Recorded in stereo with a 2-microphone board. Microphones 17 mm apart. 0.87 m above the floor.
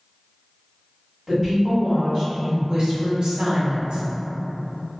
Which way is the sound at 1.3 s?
30° right (ahead or behind).